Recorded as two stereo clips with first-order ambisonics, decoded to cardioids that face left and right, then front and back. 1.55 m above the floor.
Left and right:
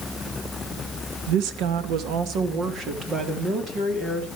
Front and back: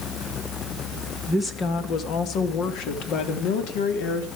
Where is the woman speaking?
80° right, 1.7 m; by 4.3 s 20° right, 4 m.